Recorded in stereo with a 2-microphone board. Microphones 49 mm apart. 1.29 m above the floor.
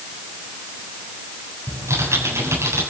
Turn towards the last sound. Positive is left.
turn(degrees=-75)  # may be behind; listen again after turning